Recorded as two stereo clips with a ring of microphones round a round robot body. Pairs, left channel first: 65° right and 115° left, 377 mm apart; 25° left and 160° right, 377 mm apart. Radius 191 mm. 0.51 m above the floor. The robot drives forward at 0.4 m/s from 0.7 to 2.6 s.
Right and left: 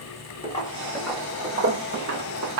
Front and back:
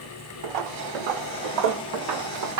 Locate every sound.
0.4 s footsteps: 140° right, 1.4 m; by 2.6 s 160° left, 1.5 m